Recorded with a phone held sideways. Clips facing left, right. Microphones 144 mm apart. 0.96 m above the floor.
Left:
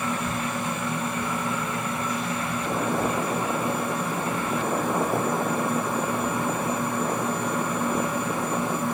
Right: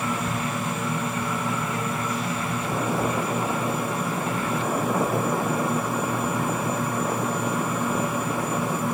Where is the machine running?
5° right (ahead or behind), 1.4 m.